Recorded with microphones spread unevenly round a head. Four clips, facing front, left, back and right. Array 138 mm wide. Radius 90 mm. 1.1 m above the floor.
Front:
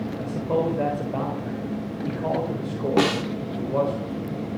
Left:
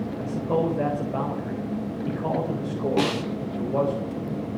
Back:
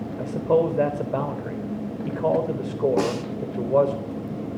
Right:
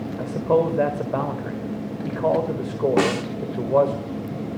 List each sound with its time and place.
0.2 s a man speaking: 160° right, 4 m
3.0 s a snare drum: 35° right, 3 m